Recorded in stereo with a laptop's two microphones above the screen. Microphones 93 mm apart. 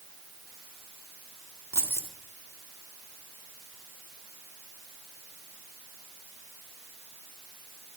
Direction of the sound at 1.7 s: 30° right (ahead or behind).